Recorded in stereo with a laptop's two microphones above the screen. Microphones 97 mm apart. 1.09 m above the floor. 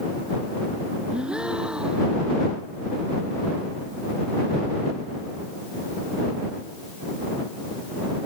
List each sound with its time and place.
1.1 s a gasp: 10° right (ahead or behind)